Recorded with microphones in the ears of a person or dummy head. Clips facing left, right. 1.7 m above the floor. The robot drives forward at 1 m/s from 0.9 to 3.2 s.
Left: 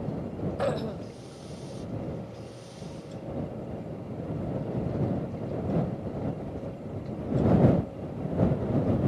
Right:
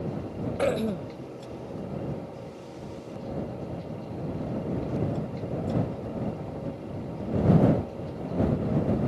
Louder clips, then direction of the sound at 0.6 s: Right 5 dB; 30° right (ahead or behind).